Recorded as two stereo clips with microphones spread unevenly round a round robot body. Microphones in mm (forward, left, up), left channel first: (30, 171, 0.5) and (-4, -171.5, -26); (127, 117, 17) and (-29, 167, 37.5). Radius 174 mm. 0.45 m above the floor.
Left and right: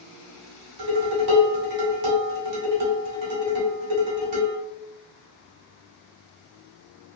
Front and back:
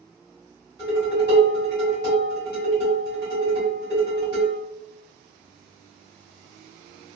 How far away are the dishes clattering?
About 1.5 m.